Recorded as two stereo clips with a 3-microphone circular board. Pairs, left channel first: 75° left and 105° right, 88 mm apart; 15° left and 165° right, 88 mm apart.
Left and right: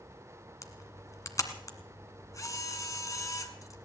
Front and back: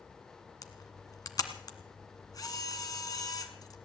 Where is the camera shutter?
40° left, 1.6 m.